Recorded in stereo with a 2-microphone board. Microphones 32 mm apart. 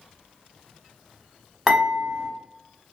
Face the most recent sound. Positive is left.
turn(degrees=-20)  # may be behind; listen again after turning